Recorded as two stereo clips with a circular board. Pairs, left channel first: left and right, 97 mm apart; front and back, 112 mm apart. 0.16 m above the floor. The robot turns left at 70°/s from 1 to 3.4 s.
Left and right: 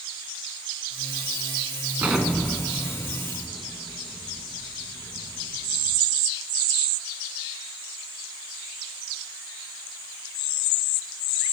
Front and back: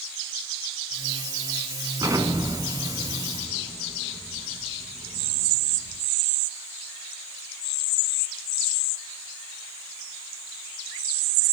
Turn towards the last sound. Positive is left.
turn(degrees=110)